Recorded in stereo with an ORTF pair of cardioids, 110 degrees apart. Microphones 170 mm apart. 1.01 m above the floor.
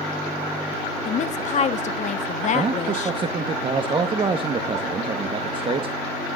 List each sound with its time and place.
1.1 s a woman speaking: 45° left, 1.3 m
2.5 s a man speaking: 30° right, 1.2 m